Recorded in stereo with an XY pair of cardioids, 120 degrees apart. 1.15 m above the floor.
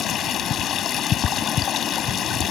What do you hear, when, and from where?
0.0 s running water: 55° left